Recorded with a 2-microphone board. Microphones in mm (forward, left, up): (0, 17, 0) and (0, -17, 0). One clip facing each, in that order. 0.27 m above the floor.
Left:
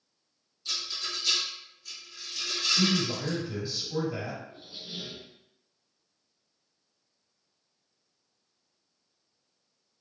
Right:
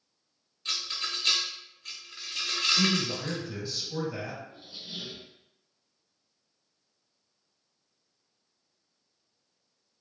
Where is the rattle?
65° right (ahead or behind), 0.8 m.